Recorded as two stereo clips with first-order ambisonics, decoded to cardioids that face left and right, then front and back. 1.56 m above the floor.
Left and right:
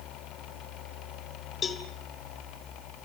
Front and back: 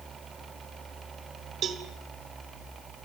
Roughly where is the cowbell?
Behind left.